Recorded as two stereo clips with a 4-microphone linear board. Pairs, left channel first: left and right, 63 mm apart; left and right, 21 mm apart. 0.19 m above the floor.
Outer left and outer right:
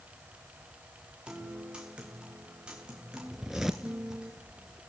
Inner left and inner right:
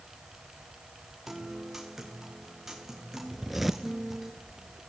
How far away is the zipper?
About 1.4 m.